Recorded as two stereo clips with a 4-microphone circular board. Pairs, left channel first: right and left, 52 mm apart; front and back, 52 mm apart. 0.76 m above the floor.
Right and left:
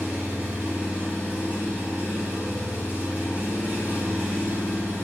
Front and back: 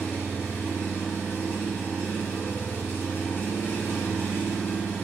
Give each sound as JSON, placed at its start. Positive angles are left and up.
{"t": 0.0, "sound": "an engine running", "azimuth_deg": 30, "distance_m": 1.1}